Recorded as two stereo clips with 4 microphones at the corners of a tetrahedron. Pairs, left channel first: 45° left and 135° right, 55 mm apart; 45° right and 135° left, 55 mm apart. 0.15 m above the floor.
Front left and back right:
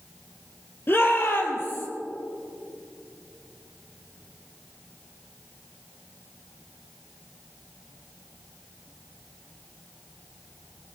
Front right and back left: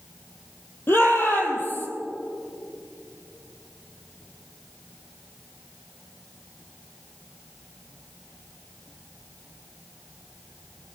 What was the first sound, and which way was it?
A shout, straight ahead.